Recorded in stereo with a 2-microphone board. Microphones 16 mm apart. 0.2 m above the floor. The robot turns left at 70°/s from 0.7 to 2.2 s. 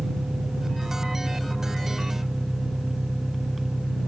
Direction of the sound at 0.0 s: 50° right.